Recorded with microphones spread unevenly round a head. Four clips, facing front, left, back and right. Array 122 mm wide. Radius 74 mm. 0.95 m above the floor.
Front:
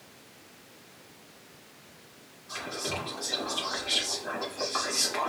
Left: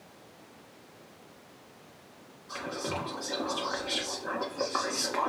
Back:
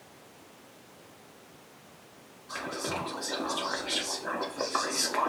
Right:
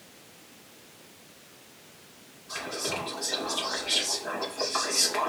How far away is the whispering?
About 1.9 m.